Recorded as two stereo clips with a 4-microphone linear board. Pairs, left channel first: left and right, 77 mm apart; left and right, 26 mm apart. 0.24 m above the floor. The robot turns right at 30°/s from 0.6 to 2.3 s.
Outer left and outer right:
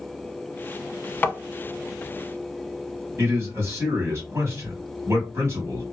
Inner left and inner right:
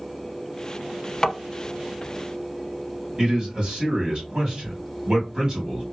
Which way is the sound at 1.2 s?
25° left (ahead or behind).